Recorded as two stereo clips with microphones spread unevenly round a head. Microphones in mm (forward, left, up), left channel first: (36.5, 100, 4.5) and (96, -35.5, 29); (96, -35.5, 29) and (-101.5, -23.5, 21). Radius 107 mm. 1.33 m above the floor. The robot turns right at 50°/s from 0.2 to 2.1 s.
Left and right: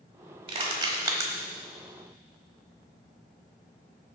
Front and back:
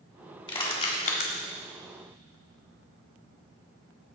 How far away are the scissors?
I don't hear scissors.